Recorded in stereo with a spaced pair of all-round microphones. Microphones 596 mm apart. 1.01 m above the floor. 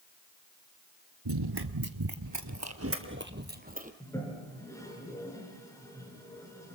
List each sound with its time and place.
1.2 s running footsteps: 40° right (ahead or behind), 1.2 m; by 3.9 s 15° right (ahead or behind), 2 m
4.0 s a toilet flushing: 5° left (ahead or behind), 5 m